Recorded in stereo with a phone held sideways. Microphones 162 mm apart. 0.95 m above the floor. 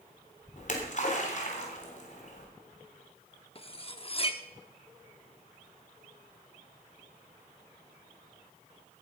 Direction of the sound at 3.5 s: 35° left (ahead or behind).